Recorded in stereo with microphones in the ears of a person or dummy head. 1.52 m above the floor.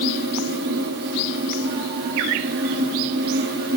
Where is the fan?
50° right (ahead or behind), 1.6 m.